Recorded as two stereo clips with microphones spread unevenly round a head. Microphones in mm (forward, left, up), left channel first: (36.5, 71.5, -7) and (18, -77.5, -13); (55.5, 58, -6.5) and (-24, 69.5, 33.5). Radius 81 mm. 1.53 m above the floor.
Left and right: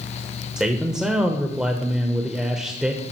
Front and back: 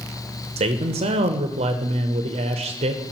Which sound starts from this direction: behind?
A man speaking, at 0.6 s.